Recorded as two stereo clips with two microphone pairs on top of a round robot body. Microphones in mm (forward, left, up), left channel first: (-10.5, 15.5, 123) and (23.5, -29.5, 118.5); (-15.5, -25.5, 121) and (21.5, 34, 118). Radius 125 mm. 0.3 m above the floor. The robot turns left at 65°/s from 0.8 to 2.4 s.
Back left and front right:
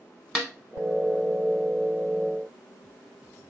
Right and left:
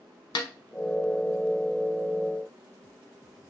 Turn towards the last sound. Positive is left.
turn(degrees=120)